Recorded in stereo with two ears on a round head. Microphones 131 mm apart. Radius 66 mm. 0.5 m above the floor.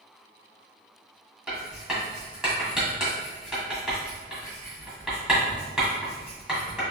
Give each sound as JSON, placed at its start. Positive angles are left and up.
{"t": 1.5, "sound": "writing", "side_deg": -5, "distance_m": 1.8}